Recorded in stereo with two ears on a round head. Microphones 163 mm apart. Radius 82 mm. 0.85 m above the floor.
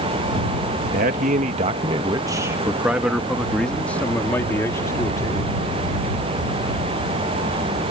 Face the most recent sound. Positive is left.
turn(degrees=20)  # may be behind; listen again after turning